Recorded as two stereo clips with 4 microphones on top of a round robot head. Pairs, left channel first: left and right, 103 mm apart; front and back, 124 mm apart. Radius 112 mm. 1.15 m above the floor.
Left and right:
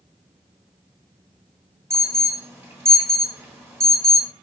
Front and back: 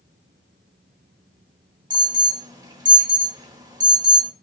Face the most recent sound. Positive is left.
turn(degrees=-140)